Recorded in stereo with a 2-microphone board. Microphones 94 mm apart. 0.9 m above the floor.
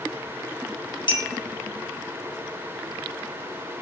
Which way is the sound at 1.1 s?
60° left (ahead or behind).